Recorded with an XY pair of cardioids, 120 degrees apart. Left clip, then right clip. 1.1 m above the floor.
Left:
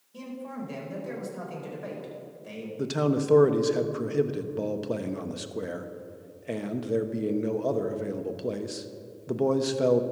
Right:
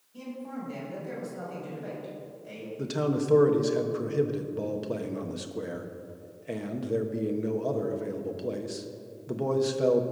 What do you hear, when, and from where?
0.1 s a man speaking: 50° left, 4.5 m
2.8 s a man speaking: 20° left, 1.0 m